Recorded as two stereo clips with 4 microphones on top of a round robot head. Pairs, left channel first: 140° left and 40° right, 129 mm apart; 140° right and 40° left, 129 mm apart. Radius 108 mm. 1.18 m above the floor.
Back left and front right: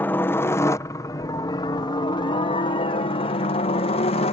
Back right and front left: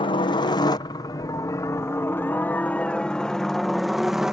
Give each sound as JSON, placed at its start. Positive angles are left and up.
{"t": 0.0, "sound": "a helicopter", "azimuth_deg": -155}